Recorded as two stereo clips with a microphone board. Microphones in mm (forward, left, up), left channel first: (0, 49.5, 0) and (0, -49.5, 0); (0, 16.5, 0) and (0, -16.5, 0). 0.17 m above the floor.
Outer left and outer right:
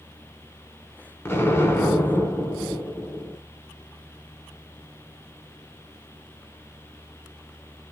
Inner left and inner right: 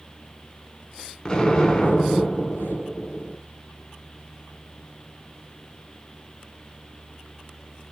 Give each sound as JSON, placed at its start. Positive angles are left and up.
{"t": 1.2, "sound": "an explosion", "side_deg": 25, "distance_m": 0.6}